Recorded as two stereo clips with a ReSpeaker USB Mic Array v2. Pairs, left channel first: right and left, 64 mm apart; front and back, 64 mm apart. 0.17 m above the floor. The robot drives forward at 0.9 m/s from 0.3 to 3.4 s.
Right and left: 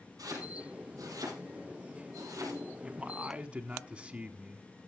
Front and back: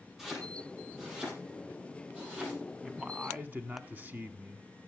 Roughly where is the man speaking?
Left.